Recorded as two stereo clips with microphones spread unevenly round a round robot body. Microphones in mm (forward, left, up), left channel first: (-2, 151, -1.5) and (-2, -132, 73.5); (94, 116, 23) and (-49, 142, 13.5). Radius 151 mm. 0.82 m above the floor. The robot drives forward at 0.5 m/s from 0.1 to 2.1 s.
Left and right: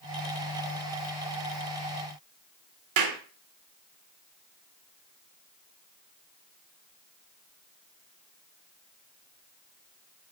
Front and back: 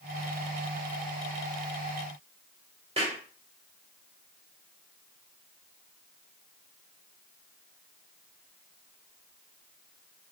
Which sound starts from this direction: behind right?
A clap, at 3.0 s.